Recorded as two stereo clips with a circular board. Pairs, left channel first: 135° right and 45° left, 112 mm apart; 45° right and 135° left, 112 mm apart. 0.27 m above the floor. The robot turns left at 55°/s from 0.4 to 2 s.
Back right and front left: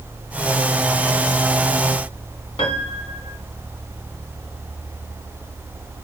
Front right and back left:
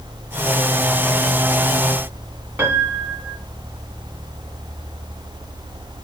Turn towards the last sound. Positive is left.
turn(degrees=-155)